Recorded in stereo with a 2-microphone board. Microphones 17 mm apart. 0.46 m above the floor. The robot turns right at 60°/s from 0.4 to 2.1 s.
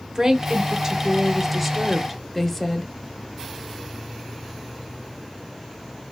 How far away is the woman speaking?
About 0.8 m.